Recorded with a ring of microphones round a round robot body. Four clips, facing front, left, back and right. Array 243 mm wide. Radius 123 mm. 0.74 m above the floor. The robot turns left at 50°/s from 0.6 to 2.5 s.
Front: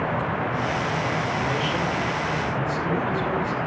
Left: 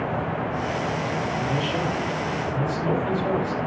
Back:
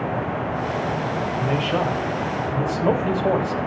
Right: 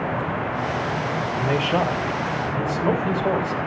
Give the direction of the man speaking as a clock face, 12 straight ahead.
3 o'clock.